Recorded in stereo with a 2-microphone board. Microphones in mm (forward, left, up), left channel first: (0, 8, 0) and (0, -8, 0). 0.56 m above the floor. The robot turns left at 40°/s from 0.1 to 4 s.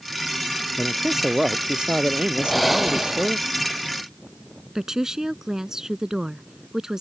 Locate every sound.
0.8 s a man speaking: 5° right; by 3.4 s 110° right
2.4 s breathing: 10° left; by 3.4 s 30° right
4.8 s a woman speaking: 35° right (ahead or behind)